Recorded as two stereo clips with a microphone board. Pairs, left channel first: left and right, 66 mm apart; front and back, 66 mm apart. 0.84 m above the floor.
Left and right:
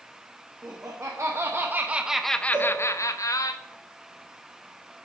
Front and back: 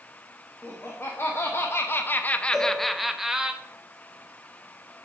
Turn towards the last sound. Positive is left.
turn(degrees=-80)